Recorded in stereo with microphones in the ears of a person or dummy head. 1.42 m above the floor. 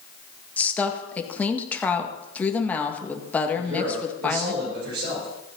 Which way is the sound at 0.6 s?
10° left (ahead or behind).